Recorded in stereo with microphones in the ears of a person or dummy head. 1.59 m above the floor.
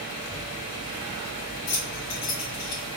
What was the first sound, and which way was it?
Keys jangling, 55° left (ahead or behind).